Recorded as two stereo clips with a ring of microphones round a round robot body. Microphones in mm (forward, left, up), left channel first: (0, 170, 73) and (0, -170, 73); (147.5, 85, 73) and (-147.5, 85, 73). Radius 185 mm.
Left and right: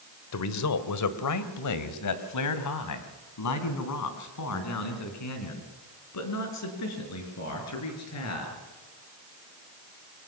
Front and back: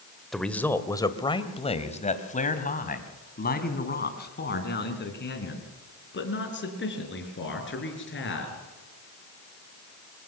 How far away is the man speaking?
About 1.6 m.